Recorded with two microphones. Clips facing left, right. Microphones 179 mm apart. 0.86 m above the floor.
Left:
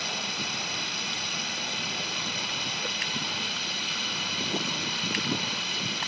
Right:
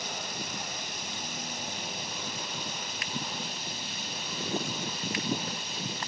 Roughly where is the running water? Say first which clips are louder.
Left 2 dB; left.